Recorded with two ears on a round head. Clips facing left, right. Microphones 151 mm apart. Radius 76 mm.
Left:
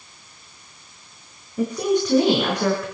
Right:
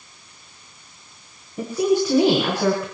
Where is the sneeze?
No sneeze in this recording.